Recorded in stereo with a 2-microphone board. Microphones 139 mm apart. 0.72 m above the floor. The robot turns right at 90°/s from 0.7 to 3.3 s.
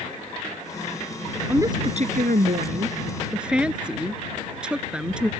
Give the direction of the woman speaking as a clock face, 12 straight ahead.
6 o'clock.